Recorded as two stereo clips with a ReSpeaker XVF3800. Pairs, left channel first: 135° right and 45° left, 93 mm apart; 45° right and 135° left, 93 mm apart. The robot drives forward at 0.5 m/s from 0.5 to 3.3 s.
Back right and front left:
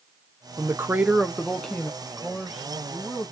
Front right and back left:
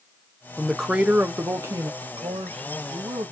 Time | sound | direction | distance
0.6 | a woman speaking | 40° left | 0.6 m
2.0 | a man speaking | 130° left | 1.2 m